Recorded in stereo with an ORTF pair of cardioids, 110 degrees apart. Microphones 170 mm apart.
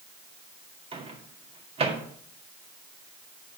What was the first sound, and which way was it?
A microwave, 35° right.